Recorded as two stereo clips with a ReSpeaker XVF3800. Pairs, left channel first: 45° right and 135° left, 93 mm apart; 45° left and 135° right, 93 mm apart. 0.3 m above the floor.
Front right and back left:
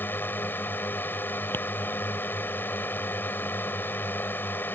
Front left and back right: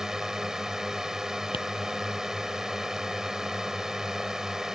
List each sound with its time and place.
0.0 s a drone: 60° right
1.5 s tapping: 25° left